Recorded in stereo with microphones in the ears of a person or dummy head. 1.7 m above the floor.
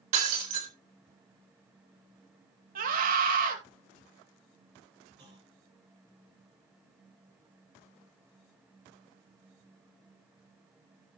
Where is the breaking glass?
40° right (ahead or behind), 3.5 m.